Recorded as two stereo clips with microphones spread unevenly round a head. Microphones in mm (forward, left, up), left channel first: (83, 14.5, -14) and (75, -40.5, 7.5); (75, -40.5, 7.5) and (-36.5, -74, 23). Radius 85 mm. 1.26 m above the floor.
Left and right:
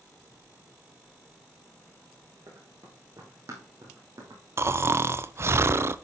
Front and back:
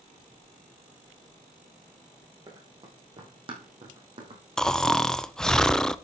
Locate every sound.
2.5 s running footsteps: 115° right, 4.5 m; by 4.4 s 135° right, 4 m
4.6 s snoring: 55° right, 0.7 m